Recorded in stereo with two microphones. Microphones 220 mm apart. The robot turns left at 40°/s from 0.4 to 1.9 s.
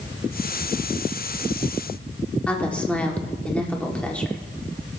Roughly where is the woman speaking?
Centre.